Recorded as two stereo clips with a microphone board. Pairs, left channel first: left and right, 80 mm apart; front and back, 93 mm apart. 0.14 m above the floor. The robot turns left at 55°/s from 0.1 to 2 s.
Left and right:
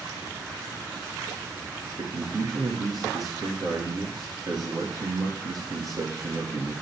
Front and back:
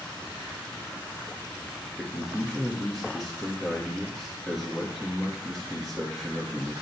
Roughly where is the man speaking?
Right.